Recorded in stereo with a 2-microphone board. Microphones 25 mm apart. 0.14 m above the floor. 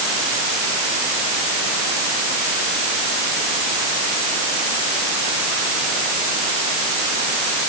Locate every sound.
Only background noise.